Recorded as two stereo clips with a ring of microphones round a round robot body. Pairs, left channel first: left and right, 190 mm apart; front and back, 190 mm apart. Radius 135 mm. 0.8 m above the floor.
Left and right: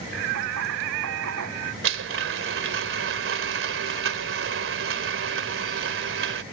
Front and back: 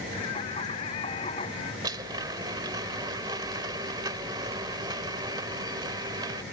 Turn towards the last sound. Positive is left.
turn(degrees=-105)